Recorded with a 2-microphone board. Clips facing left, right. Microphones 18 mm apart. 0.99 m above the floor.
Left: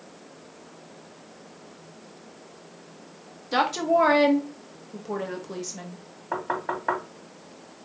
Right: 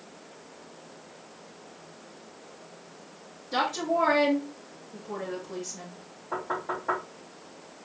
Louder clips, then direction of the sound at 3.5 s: Left 5 dB; 40° left (ahead or behind).